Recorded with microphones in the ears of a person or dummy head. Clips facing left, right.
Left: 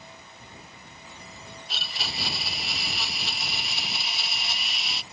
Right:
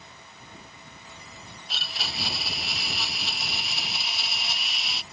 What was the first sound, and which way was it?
A blender, centre (ahead or behind).